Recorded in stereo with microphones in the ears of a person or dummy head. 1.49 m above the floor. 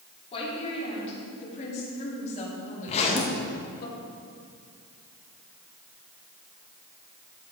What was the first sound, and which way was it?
A woman speaking, 30° left (ahead or behind).